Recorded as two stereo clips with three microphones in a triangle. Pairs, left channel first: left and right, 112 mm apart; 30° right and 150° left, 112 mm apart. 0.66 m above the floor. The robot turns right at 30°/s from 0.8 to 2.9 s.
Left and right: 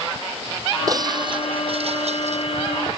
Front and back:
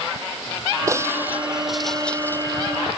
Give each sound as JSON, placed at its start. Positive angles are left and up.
{"t": 0.9, "sound": "breaking glass", "azimuth_deg": -145}